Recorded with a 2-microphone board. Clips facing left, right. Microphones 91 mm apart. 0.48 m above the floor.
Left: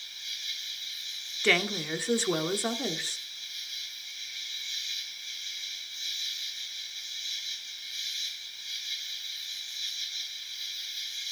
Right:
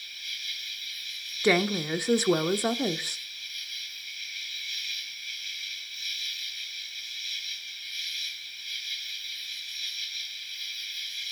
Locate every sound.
0.0 s an insect: 25° left (ahead or behind), 2 m
1.4 s a woman speaking: 15° right (ahead or behind), 0.7 m